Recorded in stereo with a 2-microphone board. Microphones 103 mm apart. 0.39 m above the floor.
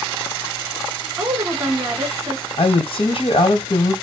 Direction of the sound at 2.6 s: 65° left (ahead or behind).